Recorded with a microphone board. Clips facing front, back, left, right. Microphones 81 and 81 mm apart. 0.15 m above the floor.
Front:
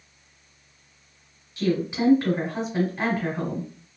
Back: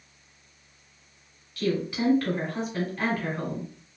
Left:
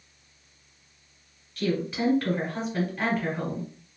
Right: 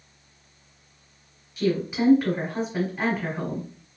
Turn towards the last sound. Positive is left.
turn(degrees=-35)